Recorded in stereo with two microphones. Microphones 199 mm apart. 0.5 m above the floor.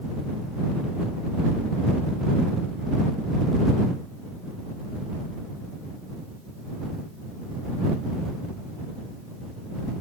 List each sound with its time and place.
Only background noise.